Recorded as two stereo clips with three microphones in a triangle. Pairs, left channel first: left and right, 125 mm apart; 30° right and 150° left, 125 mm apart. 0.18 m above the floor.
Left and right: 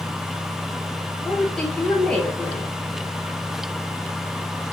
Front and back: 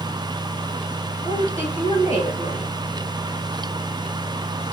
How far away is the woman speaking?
About 4 m.